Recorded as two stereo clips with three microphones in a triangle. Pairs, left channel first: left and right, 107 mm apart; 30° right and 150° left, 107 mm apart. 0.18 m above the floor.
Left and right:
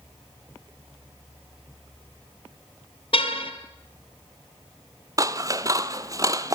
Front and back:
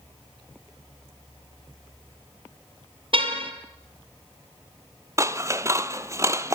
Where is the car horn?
120° left, 2.5 m.